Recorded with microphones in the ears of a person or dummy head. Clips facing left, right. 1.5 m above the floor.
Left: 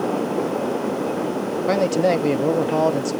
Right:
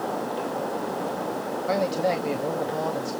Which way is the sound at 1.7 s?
60° left (ahead or behind).